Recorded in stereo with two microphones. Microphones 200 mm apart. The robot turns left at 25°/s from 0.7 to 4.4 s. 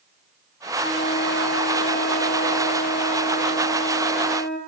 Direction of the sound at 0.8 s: 95° left.